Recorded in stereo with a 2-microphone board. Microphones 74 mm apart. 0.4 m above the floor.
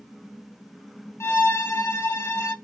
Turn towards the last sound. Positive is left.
turn(degrees=40)  # may be behind; listen again after turning